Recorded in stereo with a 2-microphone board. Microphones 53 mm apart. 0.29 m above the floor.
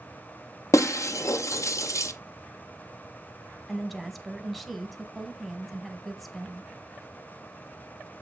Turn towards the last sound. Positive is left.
turn(degrees=0)  # may be behind; listen again after turning